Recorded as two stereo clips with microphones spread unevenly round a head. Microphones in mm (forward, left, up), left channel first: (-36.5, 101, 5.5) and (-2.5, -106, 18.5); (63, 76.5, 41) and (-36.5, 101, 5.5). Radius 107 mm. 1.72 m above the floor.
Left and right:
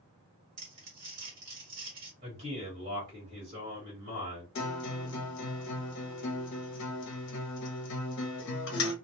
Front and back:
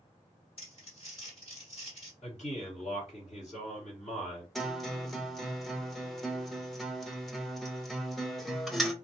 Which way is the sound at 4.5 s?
65° left.